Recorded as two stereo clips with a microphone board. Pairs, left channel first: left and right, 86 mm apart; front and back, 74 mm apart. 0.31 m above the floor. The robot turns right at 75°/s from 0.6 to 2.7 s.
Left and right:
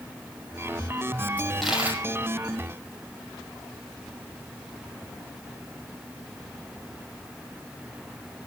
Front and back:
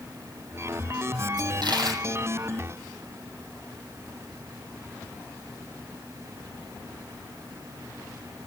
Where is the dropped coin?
160° left, 6 m; by 2.0 s 150° right, 6 m.